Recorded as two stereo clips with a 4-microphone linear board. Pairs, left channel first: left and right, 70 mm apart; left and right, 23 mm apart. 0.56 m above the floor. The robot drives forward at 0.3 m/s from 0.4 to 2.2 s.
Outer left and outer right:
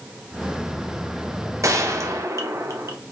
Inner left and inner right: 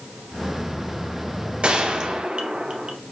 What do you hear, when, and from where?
1.6 s a gunshot: 50° right (ahead or behind), 0.8 m